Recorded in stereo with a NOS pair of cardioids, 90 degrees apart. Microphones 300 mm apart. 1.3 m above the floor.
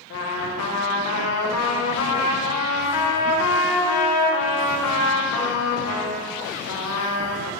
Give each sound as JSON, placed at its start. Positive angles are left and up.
{"t": 0.1, "sound": "a trumpet", "azimuth_deg": 60, "distance_m": 1.0}